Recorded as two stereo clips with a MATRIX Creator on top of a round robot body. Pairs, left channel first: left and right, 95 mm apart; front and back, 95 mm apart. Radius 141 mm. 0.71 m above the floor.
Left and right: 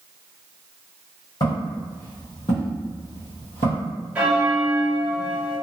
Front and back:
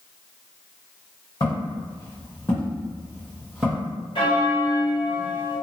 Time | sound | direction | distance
1.4 | footsteps | 40° left | 1.7 m
4.2 | a bell | 15° right | 1.5 m